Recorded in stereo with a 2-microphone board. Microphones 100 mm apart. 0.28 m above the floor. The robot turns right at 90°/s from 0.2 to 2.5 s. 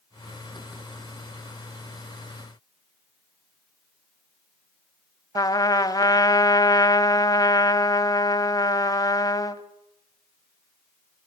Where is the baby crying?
No baby crying in this recording.